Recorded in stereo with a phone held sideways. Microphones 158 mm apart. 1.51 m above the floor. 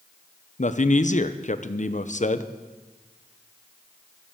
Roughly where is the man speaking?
Left.